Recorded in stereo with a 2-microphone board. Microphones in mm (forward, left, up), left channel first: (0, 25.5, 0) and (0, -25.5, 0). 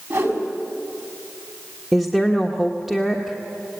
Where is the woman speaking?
5° right (ahead or behind), 1.4 m.